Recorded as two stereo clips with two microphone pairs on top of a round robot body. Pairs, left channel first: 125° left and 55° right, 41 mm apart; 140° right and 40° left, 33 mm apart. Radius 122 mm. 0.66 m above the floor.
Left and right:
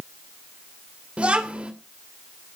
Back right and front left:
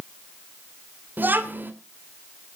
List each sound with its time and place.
1.2 s a child speaking: 5° left, 2.5 m